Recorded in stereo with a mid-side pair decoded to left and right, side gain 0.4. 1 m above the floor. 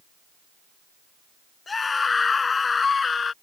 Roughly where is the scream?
Ahead left.